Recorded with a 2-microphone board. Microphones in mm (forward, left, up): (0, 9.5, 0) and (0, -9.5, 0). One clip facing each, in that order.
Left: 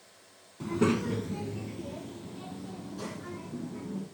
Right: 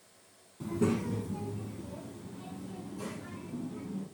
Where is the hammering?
No hammering in this recording.